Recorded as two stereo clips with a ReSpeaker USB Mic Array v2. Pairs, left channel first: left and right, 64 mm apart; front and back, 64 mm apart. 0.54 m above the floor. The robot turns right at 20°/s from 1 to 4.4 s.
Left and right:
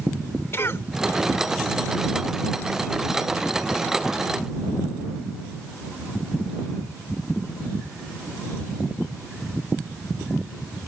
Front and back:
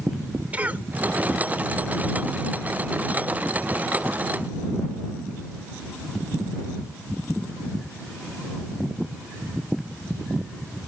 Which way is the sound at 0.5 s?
120° left.